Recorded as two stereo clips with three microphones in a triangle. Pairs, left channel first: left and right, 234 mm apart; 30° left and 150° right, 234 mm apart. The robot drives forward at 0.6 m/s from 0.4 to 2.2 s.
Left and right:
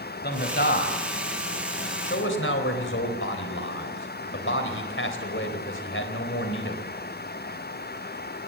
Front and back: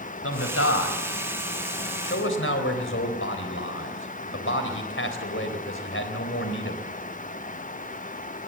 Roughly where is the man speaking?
Ahead left.